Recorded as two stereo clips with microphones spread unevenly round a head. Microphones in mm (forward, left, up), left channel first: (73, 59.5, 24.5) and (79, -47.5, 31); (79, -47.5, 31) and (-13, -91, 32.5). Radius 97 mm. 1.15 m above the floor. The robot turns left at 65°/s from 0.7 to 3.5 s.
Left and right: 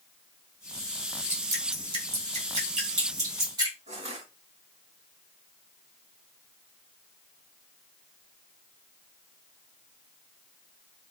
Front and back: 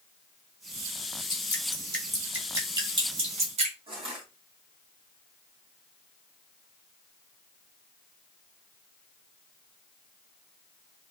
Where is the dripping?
15° right, 2.0 m; by 3.8 s 155° right, 2.0 m.